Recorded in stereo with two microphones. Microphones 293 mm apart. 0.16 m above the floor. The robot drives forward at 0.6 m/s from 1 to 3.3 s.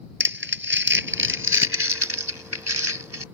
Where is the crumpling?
40° right (ahead or behind); by 3.2 s 55° right (ahead or behind).